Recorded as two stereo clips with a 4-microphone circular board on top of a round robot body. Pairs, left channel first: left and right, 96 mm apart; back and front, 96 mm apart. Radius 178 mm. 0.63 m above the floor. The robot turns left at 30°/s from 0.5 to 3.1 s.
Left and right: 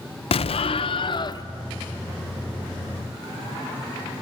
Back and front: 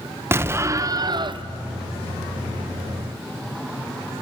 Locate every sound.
0.3 s an explosion: 65° left, 0.6 m; by 1.4 s 40° left, 0.6 m